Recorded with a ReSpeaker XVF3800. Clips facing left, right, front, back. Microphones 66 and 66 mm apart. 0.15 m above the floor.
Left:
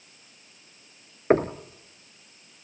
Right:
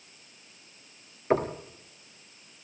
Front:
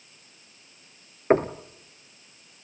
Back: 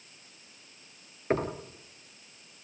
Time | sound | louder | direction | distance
1.3 | knocking | left 5 dB, front 8 dB | 50° left | 1.7 m